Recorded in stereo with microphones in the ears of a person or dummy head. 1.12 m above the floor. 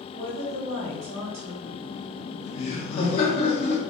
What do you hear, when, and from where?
0.1 s a woman speaking: 40° right (ahead or behind), 1.4 m
1.6 s laughter: 35° left (ahead or behind), 0.8 m